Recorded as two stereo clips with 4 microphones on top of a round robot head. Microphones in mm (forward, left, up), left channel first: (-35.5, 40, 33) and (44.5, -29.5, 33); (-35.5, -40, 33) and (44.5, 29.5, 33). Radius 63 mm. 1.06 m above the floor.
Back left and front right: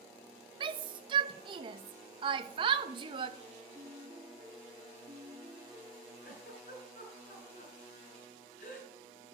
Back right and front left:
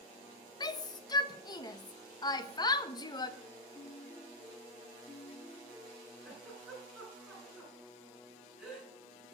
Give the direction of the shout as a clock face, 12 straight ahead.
3 o'clock.